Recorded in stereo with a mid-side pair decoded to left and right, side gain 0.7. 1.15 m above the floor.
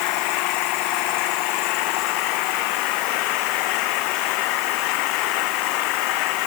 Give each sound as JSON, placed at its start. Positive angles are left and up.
{"t": 0.0, "sound": "an engine running", "azimuth_deg": 65}